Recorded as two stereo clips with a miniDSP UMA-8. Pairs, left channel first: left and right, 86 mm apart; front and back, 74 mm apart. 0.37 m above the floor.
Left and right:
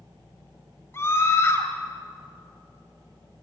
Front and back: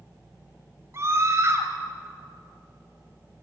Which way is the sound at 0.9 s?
140° left.